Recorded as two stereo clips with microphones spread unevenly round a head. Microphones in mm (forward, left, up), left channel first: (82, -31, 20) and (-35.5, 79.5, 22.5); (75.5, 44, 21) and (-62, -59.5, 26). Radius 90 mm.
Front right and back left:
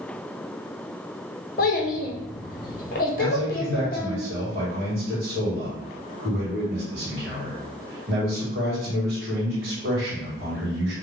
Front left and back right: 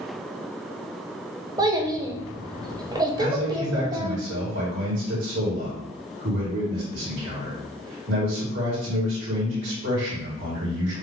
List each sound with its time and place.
1.6 s a child speaking: 80° right, 0.8 m
3.2 s a man speaking: 165° right, 2 m